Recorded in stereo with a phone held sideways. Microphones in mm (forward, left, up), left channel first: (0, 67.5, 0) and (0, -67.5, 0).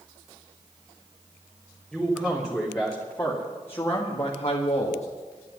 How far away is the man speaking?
About 3.5 m.